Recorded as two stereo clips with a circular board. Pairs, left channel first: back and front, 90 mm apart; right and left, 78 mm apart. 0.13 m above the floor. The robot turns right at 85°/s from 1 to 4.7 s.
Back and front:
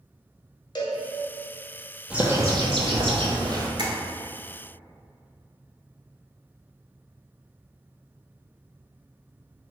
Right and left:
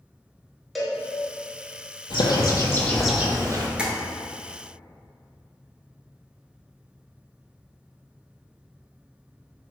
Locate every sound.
0.8 s a cowbell: straight behind, 0.7 m
2.1 s a bird: 80° right, 0.7 m; by 3.7 s 55° left, 0.7 m
3.8 s tapping: 15° left, 0.8 m; by 3.9 s 25° left, 0.8 m